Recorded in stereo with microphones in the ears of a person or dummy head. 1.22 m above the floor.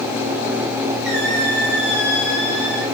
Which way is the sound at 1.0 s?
65° right (ahead or behind).